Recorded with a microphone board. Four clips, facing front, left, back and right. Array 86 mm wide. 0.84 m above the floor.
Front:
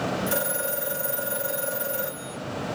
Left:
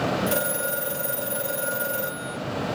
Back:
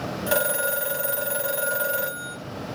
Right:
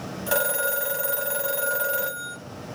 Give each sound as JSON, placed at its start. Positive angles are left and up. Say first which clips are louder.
{"t": 0.3, "sound": "a phone ringing", "louder": "right 1 dB, back 4 dB", "azimuth_deg": -145, "distance_m": 1.6}